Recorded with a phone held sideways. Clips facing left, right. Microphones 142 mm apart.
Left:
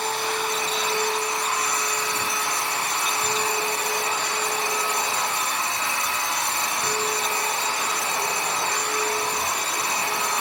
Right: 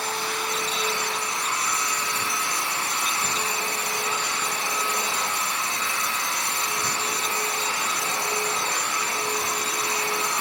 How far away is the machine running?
About 1.7 m.